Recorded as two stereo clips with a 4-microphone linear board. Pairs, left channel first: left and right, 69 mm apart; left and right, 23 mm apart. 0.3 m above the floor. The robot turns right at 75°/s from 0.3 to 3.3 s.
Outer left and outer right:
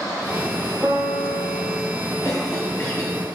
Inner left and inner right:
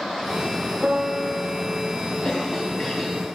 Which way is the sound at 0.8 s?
Straight ahead.